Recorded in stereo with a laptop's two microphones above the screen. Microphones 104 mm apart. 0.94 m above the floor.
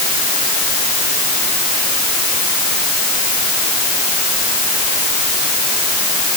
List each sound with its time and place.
Only background noise.